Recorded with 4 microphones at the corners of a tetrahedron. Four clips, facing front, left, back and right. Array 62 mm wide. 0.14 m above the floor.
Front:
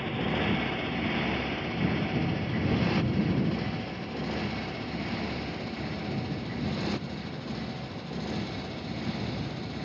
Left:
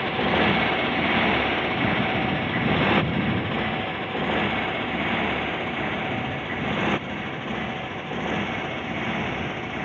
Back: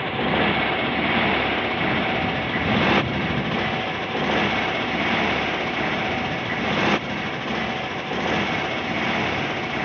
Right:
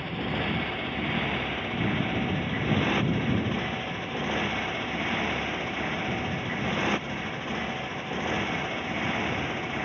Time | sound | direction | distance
0.0 | a motorcycle | 135° left | ?